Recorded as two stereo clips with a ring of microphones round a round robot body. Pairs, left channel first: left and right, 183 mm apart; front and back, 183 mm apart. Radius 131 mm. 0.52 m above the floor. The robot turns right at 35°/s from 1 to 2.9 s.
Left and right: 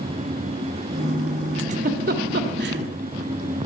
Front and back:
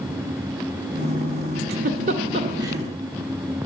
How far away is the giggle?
About 1.4 m.